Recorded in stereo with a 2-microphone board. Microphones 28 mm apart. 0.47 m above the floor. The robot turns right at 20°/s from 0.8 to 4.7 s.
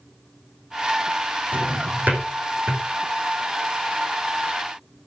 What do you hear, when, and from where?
1.5 s a drawer: 75° right (ahead or behind), 6 m; by 2.8 s 80° right, 6 m